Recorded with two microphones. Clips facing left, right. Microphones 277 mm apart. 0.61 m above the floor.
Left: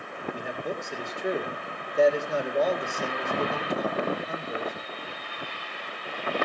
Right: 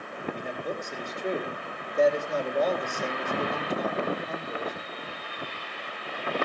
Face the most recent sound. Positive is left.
turn(degrees=10)  # may be behind; listen again after turning